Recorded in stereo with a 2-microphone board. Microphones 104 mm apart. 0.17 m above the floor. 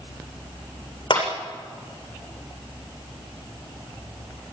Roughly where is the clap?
Left.